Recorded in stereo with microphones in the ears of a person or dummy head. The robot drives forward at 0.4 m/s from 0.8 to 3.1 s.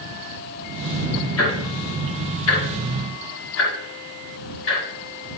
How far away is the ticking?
About 3 m.